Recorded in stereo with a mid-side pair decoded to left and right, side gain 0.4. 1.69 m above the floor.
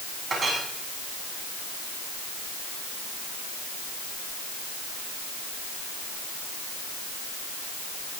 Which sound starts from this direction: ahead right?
A clink, at 0.3 s.